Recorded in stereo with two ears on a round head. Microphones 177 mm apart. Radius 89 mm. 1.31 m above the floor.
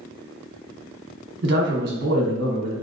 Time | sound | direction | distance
1.4 | a man speaking | 60° right (ahead or behind) | 1.4 m